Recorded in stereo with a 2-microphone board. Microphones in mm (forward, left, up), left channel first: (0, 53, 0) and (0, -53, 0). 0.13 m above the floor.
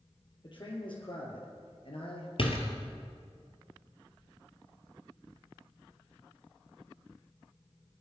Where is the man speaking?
50° left (ahead or behind), 4 m; by 2.3 s 60° left (ahead or behind), 3 m.